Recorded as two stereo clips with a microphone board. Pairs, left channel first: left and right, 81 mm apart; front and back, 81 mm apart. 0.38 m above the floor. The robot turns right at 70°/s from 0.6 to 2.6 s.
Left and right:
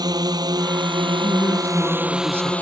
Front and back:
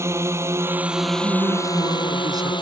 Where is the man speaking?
125° left; by 2.5 s 140° right.